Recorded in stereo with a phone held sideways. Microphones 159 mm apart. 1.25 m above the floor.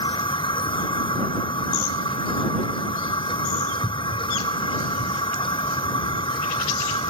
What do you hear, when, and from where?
0.0 s a machine running: 30° left (ahead or behind)